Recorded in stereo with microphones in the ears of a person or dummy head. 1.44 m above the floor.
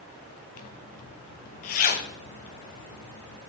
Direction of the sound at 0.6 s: 45° left (ahead or behind).